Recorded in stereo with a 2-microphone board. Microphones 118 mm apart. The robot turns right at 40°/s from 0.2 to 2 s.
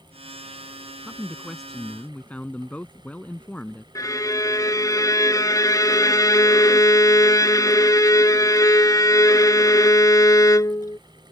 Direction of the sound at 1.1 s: 20° right.